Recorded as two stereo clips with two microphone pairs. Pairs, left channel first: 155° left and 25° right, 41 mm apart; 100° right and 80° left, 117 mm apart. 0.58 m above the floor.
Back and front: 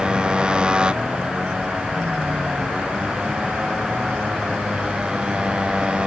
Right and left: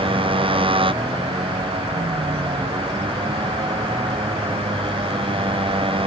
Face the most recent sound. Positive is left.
turn(degrees=45)